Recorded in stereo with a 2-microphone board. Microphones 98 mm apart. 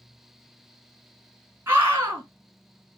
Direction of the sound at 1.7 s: 25° right (ahead or behind).